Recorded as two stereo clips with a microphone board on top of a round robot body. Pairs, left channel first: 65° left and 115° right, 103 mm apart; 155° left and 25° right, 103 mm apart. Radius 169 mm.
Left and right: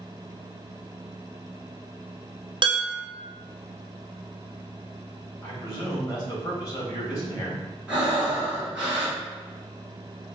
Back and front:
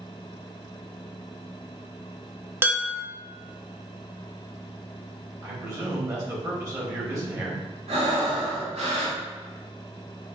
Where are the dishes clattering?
90° right, 0.9 m.